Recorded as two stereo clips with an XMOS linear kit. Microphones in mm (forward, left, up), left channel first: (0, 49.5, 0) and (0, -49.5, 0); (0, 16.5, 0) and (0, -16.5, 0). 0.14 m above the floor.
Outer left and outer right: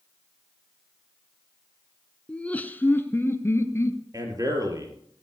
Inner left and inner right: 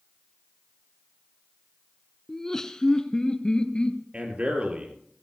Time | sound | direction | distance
2.3 | laughter | 10° left (ahead or behind) | 1.0 m
4.1 | a man speaking | 35° right (ahead or behind) | 3.5 m